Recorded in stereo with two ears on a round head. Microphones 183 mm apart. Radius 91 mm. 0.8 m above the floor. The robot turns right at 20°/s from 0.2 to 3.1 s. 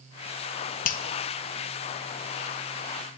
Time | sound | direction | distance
0.8 | a finger snap | 40° left (ahead or behind) | 0.5 m